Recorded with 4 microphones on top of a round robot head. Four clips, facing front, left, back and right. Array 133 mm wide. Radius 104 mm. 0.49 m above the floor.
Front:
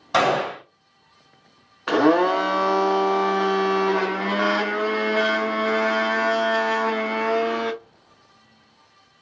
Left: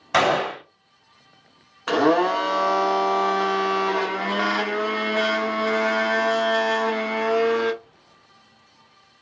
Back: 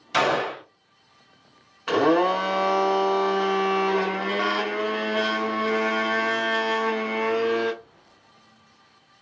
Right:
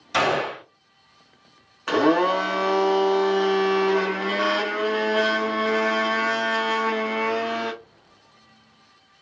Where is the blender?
20° left, 1.3 m.